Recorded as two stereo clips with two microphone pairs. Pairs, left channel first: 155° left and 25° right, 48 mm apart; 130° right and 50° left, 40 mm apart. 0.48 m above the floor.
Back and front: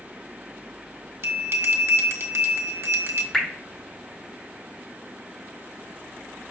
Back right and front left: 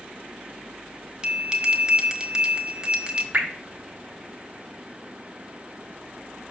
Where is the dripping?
80° left, 1.3 m.